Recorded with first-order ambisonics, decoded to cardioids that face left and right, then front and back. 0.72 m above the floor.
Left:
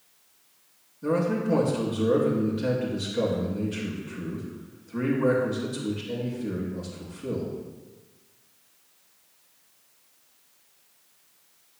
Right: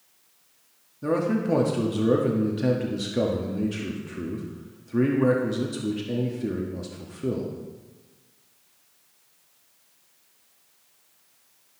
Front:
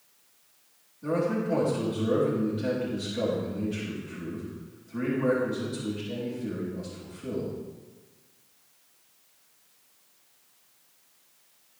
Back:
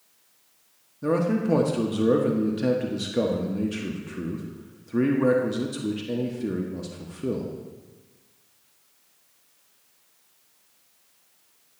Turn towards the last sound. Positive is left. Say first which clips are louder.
# right 1 dB, back 3 dB
turn(degrees=-145)